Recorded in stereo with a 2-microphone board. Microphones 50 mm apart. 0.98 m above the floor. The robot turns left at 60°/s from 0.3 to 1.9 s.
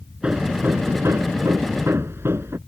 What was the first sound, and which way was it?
Hammering, 20° right.